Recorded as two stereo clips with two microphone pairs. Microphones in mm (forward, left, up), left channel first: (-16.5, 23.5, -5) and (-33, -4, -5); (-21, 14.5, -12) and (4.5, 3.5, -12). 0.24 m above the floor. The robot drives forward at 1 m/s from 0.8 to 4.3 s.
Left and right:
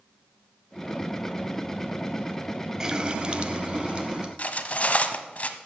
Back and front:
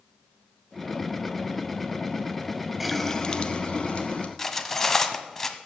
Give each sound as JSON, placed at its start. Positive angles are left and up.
{"t": 2.8, "sound": "a running tap", "azimuth_deg": -105, "distance_m": 0.6}
{"t": 4.4, "sound": "cutlery clinking", "azimuth_deg": 85, "distance_m": 1.0}